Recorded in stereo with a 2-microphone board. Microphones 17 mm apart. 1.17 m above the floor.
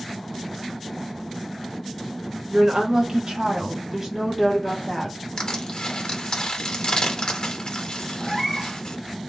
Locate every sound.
2.5 s a woman speaking: 65° right (ahead or behind), 1.0 m; by 5.2 s 5° right (ahead or behind), 1.1 m
5.4 s crushing: 55° left (ahead or behind), 0.7 m
8.2 s a cat meowing: 25° right (ahead or behind), 0.7 m